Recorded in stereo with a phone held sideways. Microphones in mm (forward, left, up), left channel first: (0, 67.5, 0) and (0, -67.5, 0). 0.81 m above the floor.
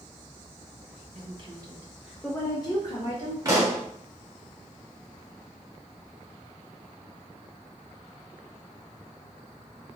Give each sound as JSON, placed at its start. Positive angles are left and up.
{"t": 1.1, "sound": "a woman speaking", "side_deg": -45, "distance_m": 0.8}
{"t": 3.5, "sound": "a pop", "side_deg": -25, "distance_m": 0.8}